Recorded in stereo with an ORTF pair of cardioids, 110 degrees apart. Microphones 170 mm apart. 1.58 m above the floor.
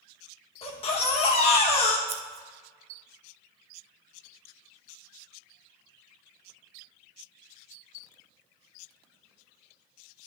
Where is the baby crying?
35° left, 1.4 m.